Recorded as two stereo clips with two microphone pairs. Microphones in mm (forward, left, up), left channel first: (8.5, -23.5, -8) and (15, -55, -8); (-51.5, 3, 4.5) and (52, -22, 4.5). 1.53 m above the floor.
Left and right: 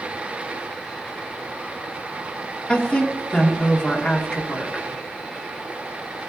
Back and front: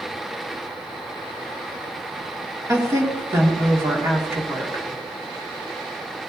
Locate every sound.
2.7 s a woman speaking: 45° left, 2.0 m